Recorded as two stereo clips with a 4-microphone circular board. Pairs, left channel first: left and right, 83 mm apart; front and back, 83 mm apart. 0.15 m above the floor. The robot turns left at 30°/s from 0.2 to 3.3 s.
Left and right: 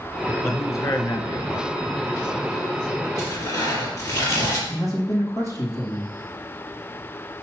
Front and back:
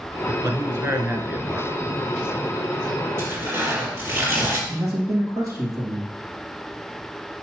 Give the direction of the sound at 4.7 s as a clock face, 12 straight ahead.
7 o'clock.